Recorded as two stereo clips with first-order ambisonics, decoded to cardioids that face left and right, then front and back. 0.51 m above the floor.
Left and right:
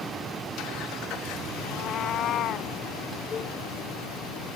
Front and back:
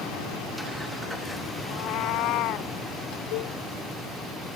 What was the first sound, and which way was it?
A cat meowing, 30° left.